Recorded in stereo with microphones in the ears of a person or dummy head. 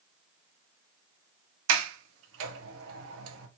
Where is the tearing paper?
I don't hear tearing paper.